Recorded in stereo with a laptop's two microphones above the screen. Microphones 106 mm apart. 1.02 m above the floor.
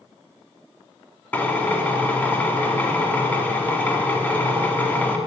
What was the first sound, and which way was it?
A drill, 15° left (ahead or behind).